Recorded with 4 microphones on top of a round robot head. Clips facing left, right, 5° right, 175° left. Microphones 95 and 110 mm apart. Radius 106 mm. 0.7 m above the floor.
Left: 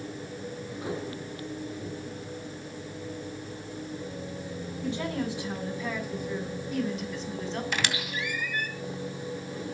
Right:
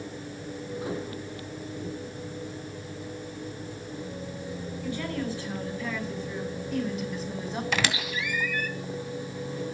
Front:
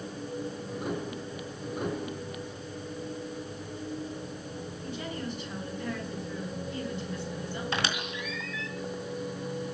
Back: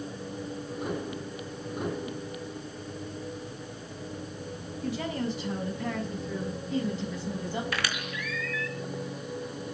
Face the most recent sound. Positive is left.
turn(degrees=-75)